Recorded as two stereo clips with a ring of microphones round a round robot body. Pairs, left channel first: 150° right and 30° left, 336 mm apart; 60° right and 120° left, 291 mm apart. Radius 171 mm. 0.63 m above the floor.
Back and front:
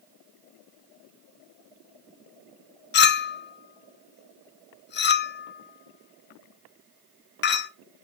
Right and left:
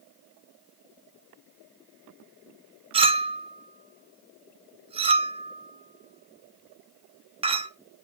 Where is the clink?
Straight behind, 0.7 m.